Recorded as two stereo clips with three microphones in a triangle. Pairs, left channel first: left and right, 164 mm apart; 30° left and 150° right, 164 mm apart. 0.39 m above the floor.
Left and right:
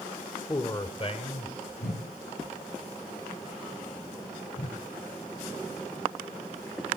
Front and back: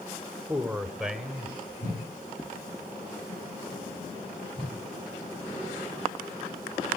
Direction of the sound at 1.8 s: 95° left.